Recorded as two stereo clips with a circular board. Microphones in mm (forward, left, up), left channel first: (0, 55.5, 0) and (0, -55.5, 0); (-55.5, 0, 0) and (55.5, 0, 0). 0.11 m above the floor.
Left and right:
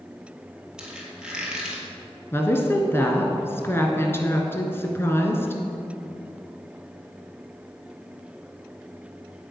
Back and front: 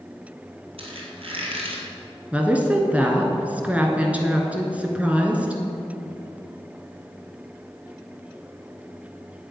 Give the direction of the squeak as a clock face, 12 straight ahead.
12 o'clock.